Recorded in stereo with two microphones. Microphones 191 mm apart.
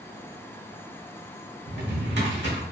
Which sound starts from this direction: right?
A drawer, at 1.7 s.